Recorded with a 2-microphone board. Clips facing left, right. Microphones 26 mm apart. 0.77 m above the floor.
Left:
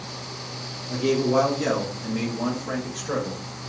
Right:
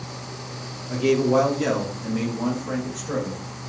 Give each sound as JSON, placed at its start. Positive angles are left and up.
{"t": 0.9, "sound": "a man speaking", "side_deg": -35, "distance_m": 1.3}